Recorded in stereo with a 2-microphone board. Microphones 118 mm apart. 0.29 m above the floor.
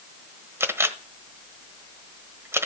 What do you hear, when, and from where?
0.6 s a camera shutter: 20° right (ahead or behind), 1.1 m